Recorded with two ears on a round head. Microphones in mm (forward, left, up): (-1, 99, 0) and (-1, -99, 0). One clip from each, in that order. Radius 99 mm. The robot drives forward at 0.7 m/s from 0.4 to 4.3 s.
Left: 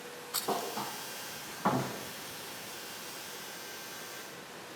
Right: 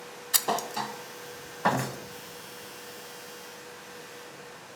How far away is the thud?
About 2 m.